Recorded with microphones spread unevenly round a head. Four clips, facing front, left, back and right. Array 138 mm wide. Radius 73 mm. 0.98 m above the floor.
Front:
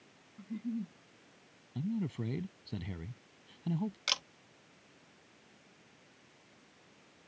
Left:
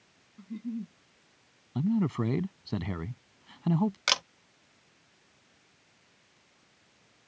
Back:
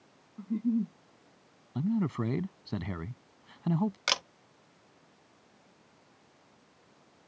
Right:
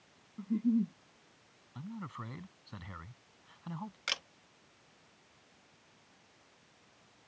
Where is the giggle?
150° right.